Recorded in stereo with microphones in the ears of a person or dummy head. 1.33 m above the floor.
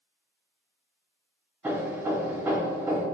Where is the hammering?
10° right (ahead or behind), 2.5 m.